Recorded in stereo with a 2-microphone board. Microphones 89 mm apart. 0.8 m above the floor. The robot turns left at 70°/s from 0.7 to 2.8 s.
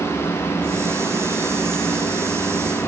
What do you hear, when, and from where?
Only background noise.